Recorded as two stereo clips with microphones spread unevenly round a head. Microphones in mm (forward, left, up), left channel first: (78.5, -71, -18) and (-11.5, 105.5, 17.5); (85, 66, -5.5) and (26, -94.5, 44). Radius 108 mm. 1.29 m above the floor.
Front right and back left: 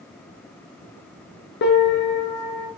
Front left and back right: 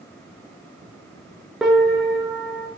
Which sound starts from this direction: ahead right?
A piano, at 1.6 s.